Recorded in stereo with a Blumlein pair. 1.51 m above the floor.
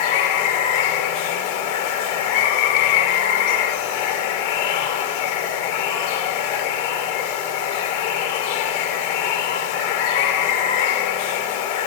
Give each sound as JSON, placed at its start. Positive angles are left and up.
{"t": 0.0, "sound": "running water", "azimuth_deg": 50, "distance_m": 2.0}